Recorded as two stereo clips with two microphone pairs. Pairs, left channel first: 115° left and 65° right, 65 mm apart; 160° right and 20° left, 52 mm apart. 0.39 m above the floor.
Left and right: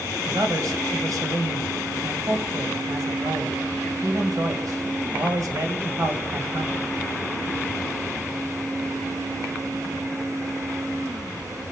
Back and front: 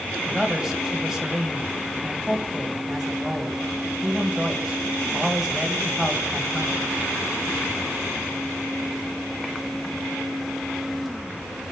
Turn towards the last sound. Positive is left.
turn(degrees=-55)